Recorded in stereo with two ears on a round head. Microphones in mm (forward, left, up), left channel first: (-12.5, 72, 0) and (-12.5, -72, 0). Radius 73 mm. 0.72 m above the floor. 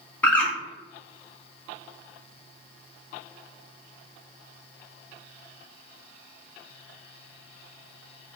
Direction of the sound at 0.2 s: 10° left (ahead or behind).